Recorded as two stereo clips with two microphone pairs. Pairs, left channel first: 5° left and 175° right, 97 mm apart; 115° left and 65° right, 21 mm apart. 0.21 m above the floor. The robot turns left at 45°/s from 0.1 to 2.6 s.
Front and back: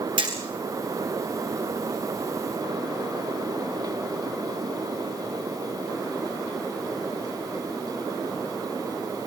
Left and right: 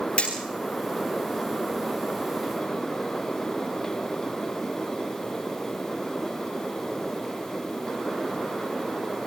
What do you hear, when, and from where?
0.2 s hammering: 150° left, 7 m; by 0.3 s 145° left, 7 m